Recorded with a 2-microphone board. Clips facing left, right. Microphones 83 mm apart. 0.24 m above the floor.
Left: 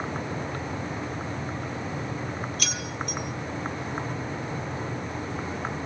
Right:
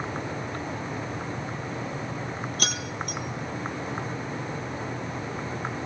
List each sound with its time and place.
2.6 s keys jangling: 50° right (ahead or behind), 4 m